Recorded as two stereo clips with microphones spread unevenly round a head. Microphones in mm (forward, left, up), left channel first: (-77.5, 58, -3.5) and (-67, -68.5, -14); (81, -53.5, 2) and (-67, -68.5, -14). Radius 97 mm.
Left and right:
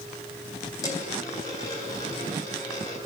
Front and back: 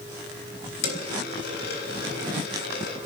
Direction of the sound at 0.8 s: 25° left.